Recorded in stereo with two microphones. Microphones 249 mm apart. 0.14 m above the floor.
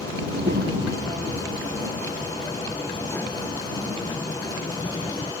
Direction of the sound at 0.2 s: 50° right (ahead or behind).